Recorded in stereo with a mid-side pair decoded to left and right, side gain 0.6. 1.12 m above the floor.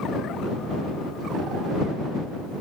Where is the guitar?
No guitar in this recording.